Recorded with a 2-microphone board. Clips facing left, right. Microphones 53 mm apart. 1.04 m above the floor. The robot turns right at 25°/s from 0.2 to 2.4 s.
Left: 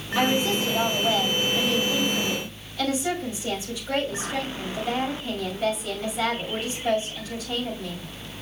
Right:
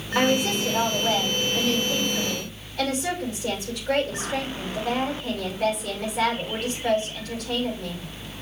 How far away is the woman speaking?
About 5.5 m.